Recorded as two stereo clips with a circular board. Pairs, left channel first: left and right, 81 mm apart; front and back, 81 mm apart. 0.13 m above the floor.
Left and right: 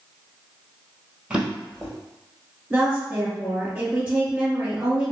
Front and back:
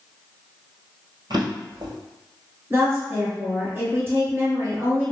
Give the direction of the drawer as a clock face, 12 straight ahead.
6 o'clock.